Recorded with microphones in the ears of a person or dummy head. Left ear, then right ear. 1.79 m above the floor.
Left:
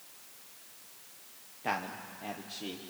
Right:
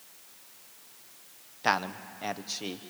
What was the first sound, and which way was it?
A man speaking, 55° right (ahead or behind).